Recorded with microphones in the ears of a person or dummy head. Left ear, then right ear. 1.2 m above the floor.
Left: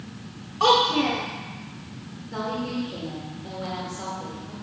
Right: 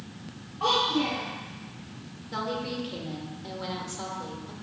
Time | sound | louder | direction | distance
0.6 | a child speaking | left 6 dB | 85° left | 1.3 m
2.3 | a woman speaking | left 2 dB | 30° right (ahead or behind) | 2.5 m